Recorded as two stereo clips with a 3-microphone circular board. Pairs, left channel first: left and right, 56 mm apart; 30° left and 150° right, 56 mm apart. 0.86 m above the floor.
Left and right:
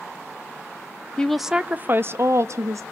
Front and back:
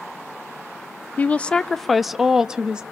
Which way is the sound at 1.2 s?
35° left.